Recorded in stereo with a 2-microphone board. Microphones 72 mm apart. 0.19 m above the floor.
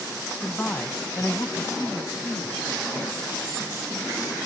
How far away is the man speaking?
About 1.3 m.